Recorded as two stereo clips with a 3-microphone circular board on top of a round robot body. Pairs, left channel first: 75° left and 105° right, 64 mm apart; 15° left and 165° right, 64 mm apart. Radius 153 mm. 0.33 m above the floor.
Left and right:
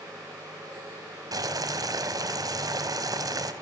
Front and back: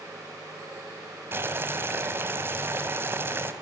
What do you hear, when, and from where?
1.3 s boiling: 115° right, 2.5 m